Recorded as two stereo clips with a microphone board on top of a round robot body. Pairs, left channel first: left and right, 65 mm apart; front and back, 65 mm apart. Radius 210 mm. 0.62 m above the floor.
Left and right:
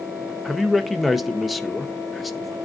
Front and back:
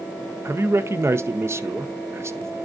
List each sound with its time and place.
0.5 s a man speaking: 175° right, 0.9 m